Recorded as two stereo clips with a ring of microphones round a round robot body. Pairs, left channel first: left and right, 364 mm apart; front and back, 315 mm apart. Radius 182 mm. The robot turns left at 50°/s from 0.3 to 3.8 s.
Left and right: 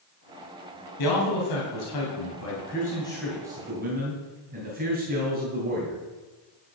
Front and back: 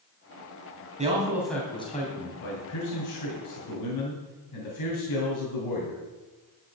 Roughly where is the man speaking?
Behind left.